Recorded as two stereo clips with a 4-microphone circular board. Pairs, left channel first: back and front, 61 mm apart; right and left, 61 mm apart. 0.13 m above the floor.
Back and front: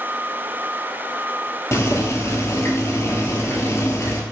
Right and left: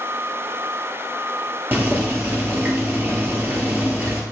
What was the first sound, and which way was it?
Boiling, 145° left.